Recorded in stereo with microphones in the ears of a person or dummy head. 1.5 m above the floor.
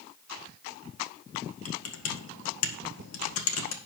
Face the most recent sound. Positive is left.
turn(degrees=80)